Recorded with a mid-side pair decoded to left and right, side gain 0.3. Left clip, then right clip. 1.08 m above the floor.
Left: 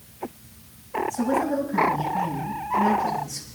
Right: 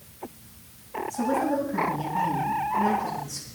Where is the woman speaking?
20° left, 7.5 m.